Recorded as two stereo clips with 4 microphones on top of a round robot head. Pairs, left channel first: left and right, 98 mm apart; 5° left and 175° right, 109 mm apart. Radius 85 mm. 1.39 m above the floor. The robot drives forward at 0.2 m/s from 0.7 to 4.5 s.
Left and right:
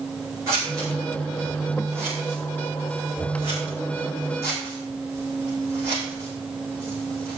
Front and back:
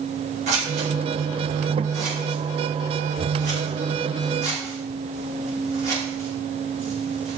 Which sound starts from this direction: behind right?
Scissors, at 0.5 s.